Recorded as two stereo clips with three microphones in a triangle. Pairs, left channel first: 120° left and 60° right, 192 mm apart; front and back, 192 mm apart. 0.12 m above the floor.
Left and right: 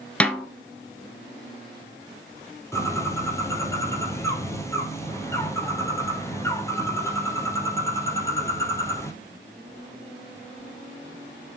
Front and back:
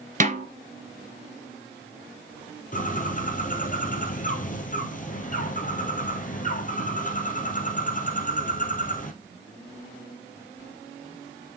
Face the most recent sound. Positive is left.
turn(degrees=45)